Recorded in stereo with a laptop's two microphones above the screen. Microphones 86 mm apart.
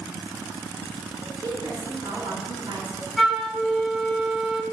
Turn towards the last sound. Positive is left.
turn(degrees=0)  # may be behind; listen again after turning